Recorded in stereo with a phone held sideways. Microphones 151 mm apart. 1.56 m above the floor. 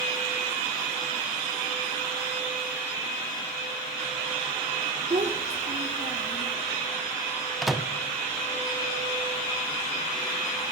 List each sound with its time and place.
5.1 s a child speaking: 50° right (ahead or behind), 0.9 m
7.6 s a microwave: centre (ahead or behind), 0.6 m